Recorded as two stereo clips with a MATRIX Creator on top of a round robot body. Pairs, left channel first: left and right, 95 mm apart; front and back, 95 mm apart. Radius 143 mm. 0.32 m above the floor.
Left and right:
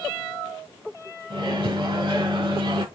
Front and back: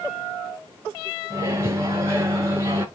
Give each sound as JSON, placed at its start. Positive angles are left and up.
{"t": 1.3, "sound": "a microwave", "azimuth_deg": -120, "distance_m": 2.5}